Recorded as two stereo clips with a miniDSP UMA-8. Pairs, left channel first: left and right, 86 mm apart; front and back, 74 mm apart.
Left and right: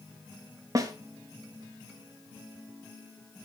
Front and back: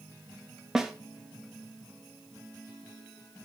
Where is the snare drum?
100° right, 1.1 m.